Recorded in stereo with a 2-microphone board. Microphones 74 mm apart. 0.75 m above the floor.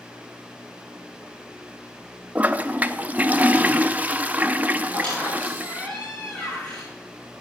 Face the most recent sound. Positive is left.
turn(degrees=20)  # may be behind; listen again after turning